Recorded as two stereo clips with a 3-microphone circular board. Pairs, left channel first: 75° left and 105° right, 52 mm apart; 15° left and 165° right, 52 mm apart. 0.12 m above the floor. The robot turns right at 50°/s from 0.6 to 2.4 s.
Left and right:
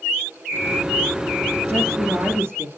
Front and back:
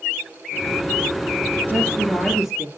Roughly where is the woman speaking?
Behind right.